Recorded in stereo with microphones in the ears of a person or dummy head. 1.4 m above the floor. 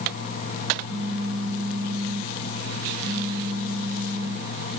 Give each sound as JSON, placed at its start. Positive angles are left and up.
{"t": 0.9, "sound": "a phone buzzing", "side_deg": 70, "distance_m": 2.0}